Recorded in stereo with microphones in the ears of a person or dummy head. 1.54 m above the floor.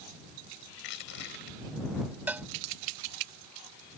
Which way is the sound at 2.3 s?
15° right (ahead or behind).